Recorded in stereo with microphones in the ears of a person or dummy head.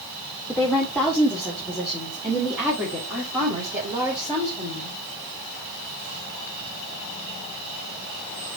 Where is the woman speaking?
10° left (ahead or behind), 1.6 m; by 5.0 s 20° right (ahead or behind), 4.5 m.